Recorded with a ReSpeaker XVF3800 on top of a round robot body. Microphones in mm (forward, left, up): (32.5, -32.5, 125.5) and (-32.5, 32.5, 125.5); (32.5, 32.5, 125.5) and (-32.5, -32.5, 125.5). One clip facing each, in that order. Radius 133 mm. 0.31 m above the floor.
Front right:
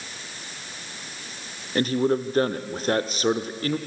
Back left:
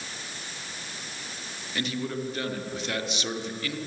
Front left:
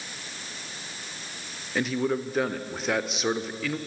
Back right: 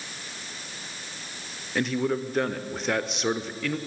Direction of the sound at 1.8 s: 45° right.